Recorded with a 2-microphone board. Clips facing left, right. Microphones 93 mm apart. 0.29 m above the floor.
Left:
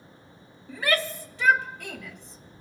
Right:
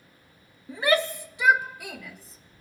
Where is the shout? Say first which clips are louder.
Right 3 dB; 25° right (ahead or behind), 1.0 m; by 2.6 s centre (ahead or behind), 1.5 m.